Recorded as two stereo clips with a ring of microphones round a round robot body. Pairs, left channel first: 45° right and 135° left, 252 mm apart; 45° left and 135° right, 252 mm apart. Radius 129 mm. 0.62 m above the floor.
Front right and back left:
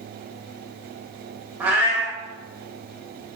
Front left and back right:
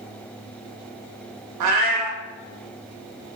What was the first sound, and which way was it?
A cat meowing, 140° right.